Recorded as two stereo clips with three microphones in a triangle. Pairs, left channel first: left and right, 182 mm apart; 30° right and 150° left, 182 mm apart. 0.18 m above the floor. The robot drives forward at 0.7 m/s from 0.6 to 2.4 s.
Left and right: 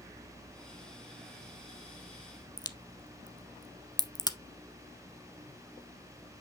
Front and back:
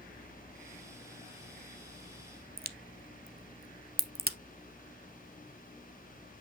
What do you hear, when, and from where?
2.6 s a crack: 150° left, 0.7 m